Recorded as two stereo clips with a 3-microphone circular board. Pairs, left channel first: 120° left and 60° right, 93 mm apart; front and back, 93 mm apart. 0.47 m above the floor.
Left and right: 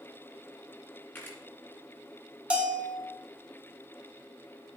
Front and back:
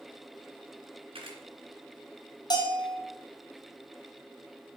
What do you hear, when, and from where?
1.1 s a camera shutter: 175° right, 2.5 m
2.5 s a bell: 15° left, 1.4 m